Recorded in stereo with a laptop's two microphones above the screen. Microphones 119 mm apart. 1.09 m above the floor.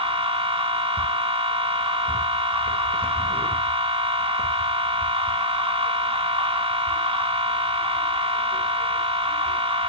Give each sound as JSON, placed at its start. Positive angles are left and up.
{"t": 0.0, "sound": "a machine running", "side_deg": -50, "distance_m": 2.0}